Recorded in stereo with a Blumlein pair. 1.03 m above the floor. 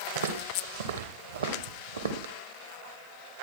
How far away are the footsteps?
About 3 m.